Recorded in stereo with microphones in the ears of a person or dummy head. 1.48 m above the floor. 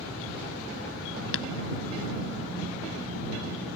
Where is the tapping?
70° left (ahead or behind).